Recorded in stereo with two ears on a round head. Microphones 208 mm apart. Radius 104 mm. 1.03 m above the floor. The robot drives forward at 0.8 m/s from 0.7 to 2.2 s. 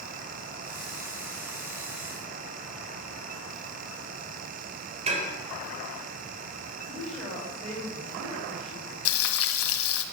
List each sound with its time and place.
5.1 s dishes clattering: 30° right (ahead or behind), 3 m
6.9 s a woman speaking: 5° left (ahead or behind), 8 m
9.1 s frying: 65° left (ahead or behind), 1.7 m